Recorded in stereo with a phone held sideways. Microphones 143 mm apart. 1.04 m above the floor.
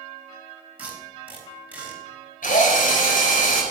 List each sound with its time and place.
0.8 s tape being pulled: 10° right (ahead or behind), 4 m
2.4 s a drill: 80° left, 4.5 m